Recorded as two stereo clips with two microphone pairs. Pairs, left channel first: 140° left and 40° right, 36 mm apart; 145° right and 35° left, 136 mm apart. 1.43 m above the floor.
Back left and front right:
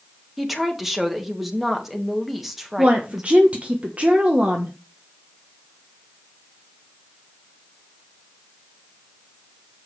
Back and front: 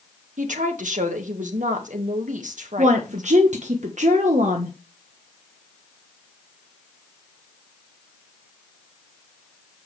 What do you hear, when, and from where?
0.4 s a woman speaking: 45° left, 1.6 m
2.8 s a woman speaking: 10° left, 1.0 m